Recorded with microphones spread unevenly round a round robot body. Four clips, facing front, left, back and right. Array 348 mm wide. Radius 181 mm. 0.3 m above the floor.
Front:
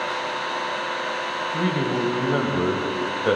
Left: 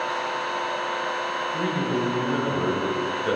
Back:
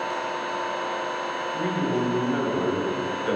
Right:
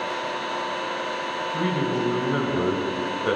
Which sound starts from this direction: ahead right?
An engine running, at 0.0 s.